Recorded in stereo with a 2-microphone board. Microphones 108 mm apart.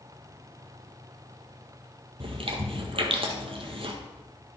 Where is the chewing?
55° right (ahead or behind), 1.5 m.